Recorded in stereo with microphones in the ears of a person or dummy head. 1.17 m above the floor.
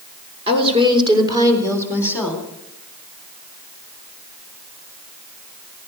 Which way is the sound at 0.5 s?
35° right (ahead or behind).